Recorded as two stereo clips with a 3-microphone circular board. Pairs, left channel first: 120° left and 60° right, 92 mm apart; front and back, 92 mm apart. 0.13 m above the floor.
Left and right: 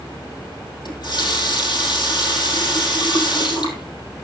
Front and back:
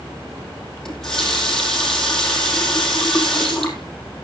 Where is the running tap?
85° left, 3 m.